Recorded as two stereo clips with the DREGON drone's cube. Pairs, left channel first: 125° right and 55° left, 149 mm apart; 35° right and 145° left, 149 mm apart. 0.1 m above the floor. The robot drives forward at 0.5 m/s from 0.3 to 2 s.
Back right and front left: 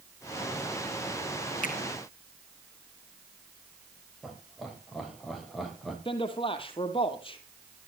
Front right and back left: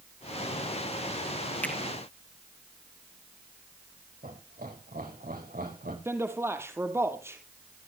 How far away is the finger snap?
About 2.5 m.